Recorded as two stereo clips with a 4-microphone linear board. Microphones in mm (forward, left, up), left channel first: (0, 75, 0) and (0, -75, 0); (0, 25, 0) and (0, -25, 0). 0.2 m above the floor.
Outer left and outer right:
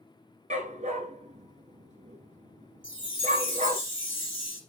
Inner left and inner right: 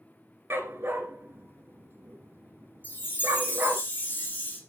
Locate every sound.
0.5 s a dog barking: 55° right (ahead or behind), 1.4 m
2.8 s a chime: 35° left (ahead or behind), 6.5 m